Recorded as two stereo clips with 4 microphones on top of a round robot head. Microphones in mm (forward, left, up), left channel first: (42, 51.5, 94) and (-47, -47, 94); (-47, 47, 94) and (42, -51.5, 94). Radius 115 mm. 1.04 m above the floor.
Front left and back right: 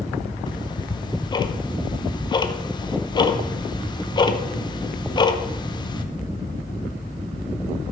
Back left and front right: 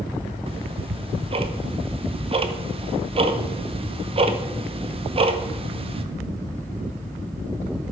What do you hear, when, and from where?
0.5 s ticking: 5° right, 0.9 m